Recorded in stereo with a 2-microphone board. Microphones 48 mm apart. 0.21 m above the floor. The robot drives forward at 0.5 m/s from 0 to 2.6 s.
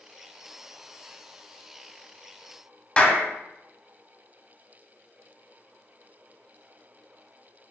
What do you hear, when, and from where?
3.0 s a clap: 20° left (ahead or behind), 0.8 m